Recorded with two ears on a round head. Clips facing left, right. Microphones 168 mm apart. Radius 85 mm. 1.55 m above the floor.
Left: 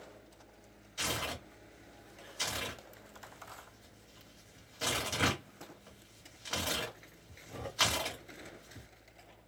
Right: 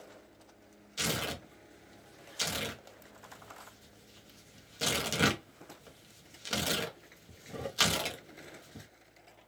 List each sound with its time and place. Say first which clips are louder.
1.0 s tearing paper: right 3 dB; 40° right (ahead or behind), 1.3 m